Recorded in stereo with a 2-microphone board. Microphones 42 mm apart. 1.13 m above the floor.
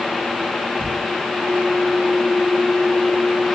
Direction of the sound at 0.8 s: 25° left (ahead or behind).